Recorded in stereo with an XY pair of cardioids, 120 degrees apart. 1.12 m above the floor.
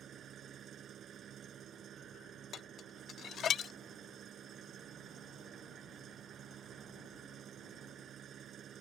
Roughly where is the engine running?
Ahead right.